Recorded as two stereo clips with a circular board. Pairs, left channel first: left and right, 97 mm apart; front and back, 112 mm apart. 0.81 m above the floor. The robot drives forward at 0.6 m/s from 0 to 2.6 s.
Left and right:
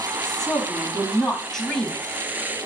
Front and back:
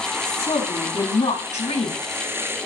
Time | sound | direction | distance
0.2 | a woman speaking | 5° left | 5 m